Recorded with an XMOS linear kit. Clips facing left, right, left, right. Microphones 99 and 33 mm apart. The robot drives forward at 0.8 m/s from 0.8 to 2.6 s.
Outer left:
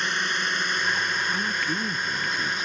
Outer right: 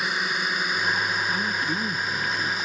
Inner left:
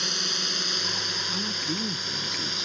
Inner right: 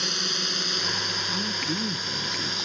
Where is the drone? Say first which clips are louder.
Even, inner right 1 dB; 5° right (ahead or behind); by 2.6 s centre (ahead or behind).